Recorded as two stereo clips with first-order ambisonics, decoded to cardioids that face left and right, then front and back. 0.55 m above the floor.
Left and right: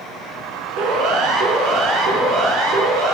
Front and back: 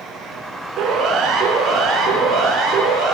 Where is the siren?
120° right, 4.5 m.